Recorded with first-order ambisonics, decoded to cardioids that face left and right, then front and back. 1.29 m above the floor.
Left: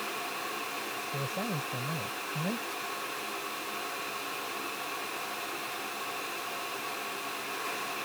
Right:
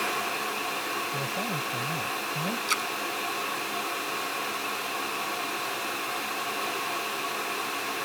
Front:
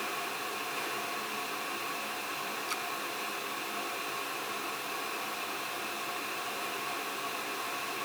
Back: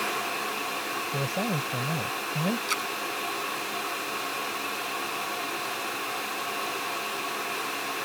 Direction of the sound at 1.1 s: Straight behind.